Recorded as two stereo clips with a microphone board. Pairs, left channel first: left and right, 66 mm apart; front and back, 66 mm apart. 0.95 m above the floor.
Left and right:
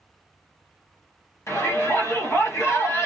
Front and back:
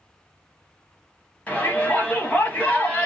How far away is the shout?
About 1.3 m.